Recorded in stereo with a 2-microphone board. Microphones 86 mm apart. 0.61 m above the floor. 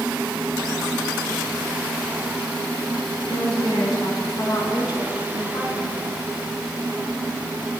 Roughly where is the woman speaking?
Left.